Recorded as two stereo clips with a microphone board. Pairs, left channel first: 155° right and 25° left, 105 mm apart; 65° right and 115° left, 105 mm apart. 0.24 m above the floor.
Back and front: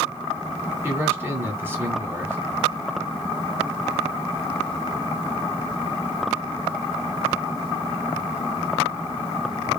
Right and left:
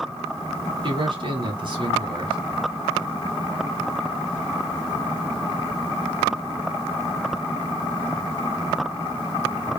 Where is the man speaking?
90° left, 1.5 m.